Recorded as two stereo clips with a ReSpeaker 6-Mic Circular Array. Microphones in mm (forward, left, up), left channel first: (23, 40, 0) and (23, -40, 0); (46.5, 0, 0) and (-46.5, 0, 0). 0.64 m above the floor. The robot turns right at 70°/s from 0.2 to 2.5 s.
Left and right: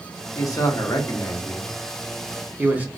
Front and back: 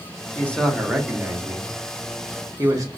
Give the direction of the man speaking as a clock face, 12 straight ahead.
10 o'clock.